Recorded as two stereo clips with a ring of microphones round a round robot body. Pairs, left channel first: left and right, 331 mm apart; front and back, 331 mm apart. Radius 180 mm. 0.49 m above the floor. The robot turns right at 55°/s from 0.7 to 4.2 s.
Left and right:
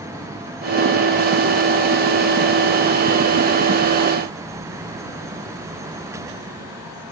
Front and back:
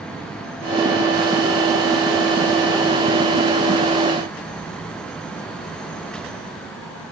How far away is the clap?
I don't hear a clap.